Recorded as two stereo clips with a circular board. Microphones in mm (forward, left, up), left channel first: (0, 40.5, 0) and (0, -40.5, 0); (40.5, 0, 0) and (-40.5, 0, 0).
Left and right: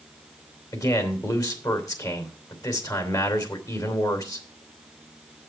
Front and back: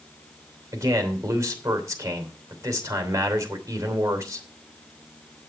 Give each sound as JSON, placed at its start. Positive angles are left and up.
{"t": 0.7, "sound": "a man speaking", "azimuth_deg": 130, "distance_m": 3.0}